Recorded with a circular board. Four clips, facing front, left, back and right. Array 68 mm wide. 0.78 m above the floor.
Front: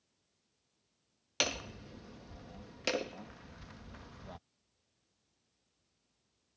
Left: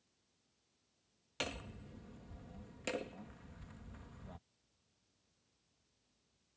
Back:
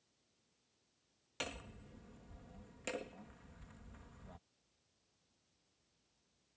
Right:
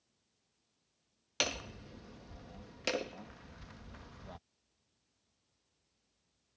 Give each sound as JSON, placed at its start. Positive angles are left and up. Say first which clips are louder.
{"t": 1.4, "sound": "hammering", "louder": "right 5 dB, front 9 dB", "azimuth_deg": -35}